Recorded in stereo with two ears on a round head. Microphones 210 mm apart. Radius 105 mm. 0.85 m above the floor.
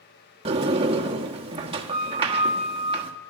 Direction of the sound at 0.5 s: 25° right (ahead or behind).